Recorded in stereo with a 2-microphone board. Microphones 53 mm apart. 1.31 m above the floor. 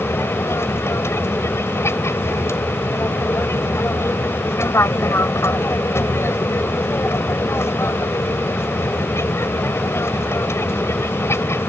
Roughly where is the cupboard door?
No cupboard door in this recording.